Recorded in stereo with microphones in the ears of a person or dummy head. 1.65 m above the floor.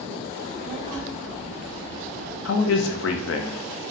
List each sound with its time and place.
0.4 s a child speaking: 35° right (ahead or behind), 2.5 m; by 2.4 s 60° right (ahead or behind), 1.6 m
2.5 s a man speaking: 60° left (ahead or behind), 0.7 m